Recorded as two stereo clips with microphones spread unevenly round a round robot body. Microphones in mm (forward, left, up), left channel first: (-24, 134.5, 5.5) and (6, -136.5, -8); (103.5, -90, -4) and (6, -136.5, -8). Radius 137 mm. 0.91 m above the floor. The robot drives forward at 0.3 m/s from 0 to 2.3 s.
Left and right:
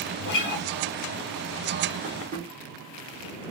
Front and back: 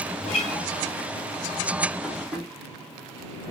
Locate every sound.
0.2 s a guitar: 45° left, 1.0 m; by 0.7 s 50° left, 0.9 m
2.0 s tapping: 70° right, 0.9 m; by 2.5 s 80° right, 0.9 m